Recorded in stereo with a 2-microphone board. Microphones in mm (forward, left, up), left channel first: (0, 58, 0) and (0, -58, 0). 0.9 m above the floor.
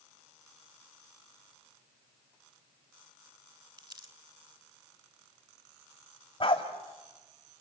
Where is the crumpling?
35° right (ahead or behind), 1.4 m.